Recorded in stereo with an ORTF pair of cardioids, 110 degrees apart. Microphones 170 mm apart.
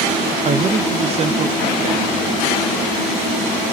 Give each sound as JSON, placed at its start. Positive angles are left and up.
{"t": 0.5, "sound": "a man speaking", "azimuth_deg": -40, "distance_m": 0.6}